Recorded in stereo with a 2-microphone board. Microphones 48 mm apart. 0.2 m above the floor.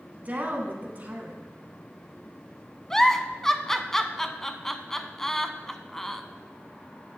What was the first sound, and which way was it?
A woman speaking, 35° right (ahead or behind).